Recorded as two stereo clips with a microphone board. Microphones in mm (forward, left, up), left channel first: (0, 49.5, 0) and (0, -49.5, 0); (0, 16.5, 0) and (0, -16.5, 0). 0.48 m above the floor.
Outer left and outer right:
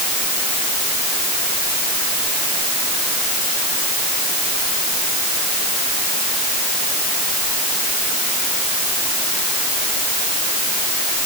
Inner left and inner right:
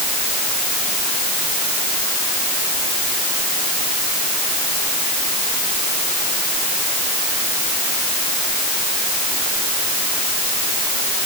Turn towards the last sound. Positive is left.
No sound to turn to.